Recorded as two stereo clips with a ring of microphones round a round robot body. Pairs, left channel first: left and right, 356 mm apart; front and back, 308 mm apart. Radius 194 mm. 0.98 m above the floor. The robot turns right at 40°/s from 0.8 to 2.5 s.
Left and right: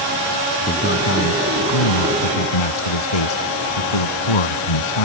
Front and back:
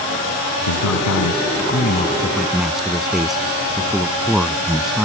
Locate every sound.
0.7 s a man speaking: 25° left; by 5.0 s 90° left